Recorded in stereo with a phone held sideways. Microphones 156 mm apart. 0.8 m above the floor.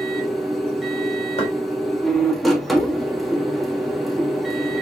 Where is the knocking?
40° left (ahead or behind), 1.4 m.